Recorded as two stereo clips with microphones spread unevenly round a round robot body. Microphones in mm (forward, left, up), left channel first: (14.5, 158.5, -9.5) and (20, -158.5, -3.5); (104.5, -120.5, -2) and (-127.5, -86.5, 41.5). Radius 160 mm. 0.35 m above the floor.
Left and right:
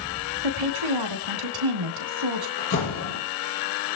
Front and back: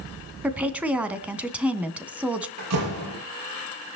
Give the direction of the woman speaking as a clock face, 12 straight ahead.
3 o'clock.